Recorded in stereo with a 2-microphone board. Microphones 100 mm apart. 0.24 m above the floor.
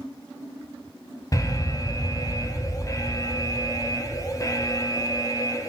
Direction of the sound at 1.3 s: 35° left (ahead or behind).